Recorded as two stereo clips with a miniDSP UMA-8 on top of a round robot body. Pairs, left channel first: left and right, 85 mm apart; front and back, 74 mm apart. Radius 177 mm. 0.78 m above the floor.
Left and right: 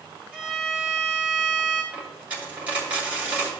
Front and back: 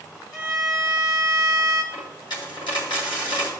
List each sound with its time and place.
0.3 s a violin: 5° right, 3.5 m
1.9 s a dropped coin: 15° right, 2.0 m